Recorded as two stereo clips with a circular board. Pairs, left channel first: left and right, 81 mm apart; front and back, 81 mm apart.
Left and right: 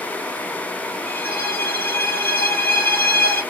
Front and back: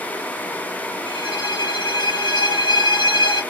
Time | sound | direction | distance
1.1 | a violin | 25° left | 0.9 m